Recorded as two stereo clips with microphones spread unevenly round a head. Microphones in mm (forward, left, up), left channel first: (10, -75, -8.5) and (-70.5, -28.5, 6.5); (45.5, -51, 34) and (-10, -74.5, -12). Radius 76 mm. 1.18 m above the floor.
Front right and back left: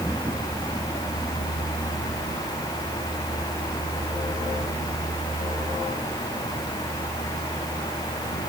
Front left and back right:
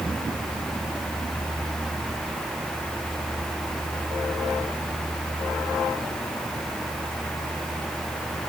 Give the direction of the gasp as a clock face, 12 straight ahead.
I don't hear a gasp.